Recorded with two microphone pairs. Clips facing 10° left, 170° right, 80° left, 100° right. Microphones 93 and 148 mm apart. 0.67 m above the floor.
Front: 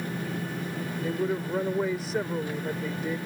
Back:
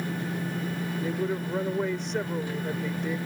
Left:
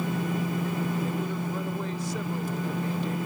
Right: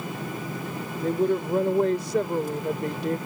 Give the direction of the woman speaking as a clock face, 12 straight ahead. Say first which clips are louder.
Front 2 dB, right 7 dB; 3 o'clock.